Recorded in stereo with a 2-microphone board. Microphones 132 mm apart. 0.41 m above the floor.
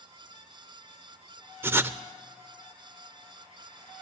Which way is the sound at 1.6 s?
15° right (ahead or behind).